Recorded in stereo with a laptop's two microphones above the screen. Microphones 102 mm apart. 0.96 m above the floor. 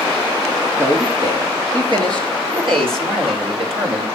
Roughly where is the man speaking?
Right.